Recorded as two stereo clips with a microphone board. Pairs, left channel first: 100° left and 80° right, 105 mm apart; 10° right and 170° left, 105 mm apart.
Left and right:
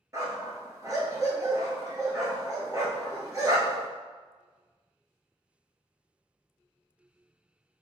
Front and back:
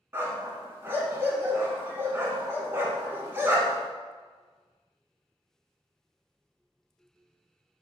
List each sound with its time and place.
0.1 s a dog barking: 125° right, 1.0 m